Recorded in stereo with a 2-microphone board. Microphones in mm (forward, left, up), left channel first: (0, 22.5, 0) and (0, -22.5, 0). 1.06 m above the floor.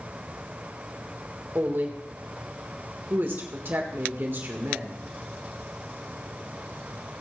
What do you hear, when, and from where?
1.6 s a woman speaking: 55° right (ahead or behind), 1.4 m